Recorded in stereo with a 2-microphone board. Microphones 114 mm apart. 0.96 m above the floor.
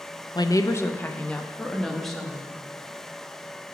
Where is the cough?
No cough in this recording.